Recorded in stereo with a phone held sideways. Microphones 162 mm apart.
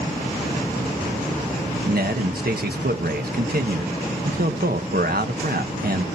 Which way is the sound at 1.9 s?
70° right (ahead or behind).